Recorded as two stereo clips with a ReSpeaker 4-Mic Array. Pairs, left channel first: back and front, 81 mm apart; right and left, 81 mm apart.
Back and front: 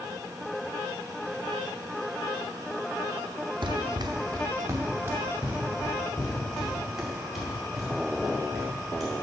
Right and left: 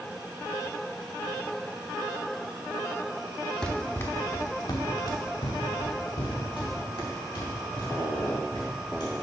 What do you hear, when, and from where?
3.6 s running footsteps: 10° right, 0.8 m; by 9.2 s 90° right, 4 m